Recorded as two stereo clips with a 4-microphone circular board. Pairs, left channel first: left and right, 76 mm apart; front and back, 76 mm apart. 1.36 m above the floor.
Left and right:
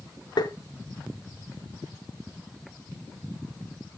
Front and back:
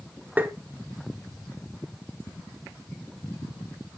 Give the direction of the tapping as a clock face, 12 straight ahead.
8 o'clock.